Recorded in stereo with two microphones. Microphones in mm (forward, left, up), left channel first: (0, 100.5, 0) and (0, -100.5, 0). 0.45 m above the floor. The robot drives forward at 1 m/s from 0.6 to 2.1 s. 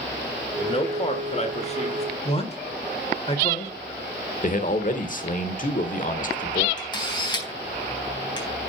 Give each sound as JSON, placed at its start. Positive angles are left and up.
{"t": 0.6, "sound": "a man speaking", "side_deg": 30, "distance_m": 1.6}
{"t": 2.2, "sound": "a man speaking", "side_deg": 30, "distance_m": 1.8}
{"t": 4.4, "sound": "a man speaking", "side_deg": 45, "distance_m": 1.2}
{"t": 6.8, "sound": "a camera shutter", "side_deg": 25, "distance_m": 4.0}